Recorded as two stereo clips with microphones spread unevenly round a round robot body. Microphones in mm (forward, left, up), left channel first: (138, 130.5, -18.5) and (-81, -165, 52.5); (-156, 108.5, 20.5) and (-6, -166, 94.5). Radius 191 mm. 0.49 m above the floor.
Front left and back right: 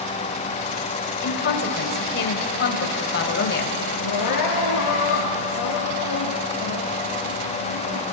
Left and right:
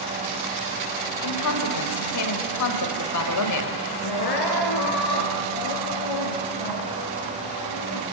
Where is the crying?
100° left, 3.5 m.